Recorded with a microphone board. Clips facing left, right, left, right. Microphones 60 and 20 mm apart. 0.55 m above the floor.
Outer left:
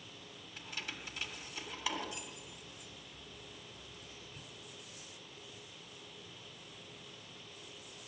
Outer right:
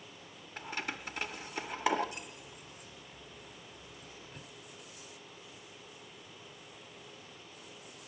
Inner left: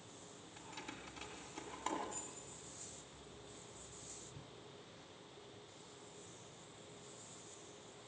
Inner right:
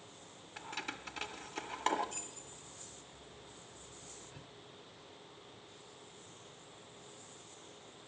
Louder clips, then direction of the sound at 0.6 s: Outer right 6 dB, inner right 8 dB; 50° right (ahead or behind).